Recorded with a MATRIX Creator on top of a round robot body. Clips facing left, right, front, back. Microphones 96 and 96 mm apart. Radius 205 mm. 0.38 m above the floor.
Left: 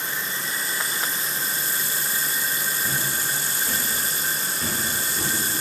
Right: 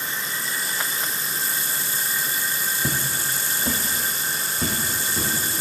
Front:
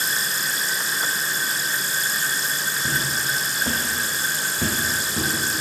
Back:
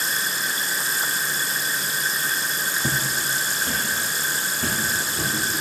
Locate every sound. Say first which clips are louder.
2.8 s footsteps: right 1 dB, front 2 dB; 130° right, 1.1 m; by 5.3 s 25° right, 3 m